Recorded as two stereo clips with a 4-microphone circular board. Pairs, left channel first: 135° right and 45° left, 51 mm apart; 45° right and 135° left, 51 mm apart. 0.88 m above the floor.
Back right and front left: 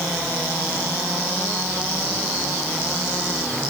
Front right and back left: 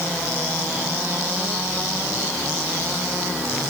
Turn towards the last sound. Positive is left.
No sound to turn to.